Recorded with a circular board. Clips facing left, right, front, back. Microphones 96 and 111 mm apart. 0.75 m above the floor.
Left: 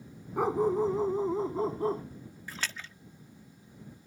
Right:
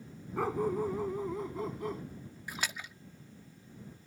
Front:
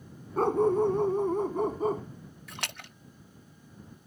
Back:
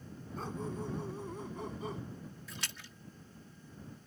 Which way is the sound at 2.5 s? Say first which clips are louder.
Even, front 6 dB; 15° right.